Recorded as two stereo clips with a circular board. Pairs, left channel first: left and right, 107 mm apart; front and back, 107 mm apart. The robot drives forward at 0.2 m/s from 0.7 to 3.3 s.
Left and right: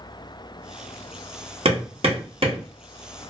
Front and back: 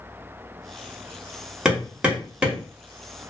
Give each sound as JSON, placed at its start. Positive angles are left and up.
{"t": 1.6, "sound": "hammering", "azimuth_deg": -95, "distance_m": 1.1}